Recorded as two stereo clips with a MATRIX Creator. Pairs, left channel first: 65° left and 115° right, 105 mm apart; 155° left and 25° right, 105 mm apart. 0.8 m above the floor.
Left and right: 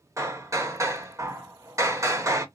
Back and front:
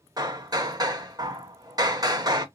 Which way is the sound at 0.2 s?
60° right.